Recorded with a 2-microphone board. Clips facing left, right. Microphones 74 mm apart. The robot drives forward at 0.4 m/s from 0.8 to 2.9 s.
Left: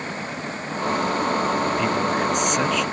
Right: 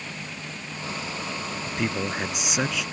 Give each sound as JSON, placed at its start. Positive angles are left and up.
{"t": 0.0, "sound": "running water", "side_deg": 40}
{"t": 1.6, "sound": "a man speaking", "side_deg": -5}